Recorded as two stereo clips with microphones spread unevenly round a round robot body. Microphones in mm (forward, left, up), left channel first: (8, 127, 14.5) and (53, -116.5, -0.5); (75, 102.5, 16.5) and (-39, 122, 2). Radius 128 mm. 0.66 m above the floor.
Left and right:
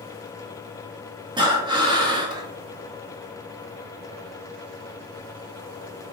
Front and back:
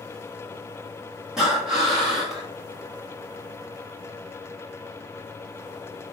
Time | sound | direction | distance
1.4 | breathing | 120° right | 1.0 m